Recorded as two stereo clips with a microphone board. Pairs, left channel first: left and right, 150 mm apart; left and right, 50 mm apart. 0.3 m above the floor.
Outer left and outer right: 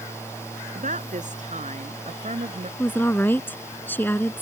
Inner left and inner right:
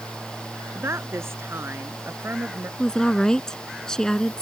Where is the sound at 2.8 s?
15° left (ahead or behind).